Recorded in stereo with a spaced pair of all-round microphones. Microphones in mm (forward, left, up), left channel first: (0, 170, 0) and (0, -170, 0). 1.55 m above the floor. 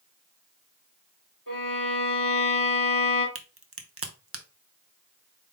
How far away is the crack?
About 0.6 m.